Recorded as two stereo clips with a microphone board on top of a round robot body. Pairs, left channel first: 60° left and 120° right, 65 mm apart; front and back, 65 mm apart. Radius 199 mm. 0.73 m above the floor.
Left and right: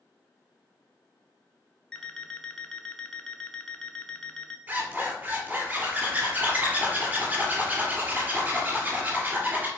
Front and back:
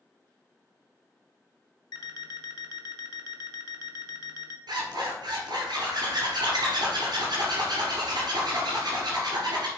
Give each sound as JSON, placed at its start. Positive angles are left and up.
{"t": 1.9, "sound": "an alarm clock", "azimuth_deg": -20, "distance_m": 0.6}
{"t": 4.7, "sound": "a zipper", "azimuth_deg": 175, "distance_m": 2.5}